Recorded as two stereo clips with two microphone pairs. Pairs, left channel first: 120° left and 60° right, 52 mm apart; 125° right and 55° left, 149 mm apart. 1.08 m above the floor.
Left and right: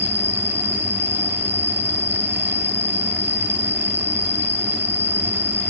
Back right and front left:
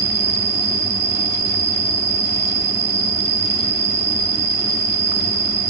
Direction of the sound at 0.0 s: 90° left.